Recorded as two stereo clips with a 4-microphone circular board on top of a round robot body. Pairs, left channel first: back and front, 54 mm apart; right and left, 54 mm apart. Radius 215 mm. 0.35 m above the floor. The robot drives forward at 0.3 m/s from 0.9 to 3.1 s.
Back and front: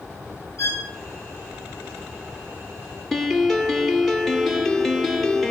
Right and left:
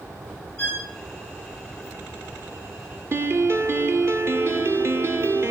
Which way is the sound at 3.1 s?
95° left.